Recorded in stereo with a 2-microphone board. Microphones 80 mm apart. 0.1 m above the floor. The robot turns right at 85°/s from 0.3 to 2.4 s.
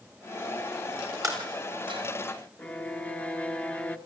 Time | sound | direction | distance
1.2 | breaking glass | 40° right (ahead or behind) | 8 m
2.6 | a violin | 15° left (ahead or behind) | 0.9 m